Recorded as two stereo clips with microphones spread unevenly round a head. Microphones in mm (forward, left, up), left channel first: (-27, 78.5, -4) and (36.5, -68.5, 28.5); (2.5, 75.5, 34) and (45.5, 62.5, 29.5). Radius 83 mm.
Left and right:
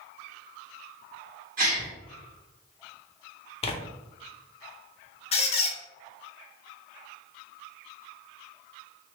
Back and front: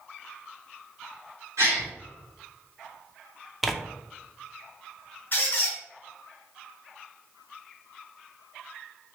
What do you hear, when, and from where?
1.6 s a gasp: 30° right, 1.7 m
3.6 s tearing paper: 70° left, 0.5 m
5.3 s a squeak: 165° left, 0.5 m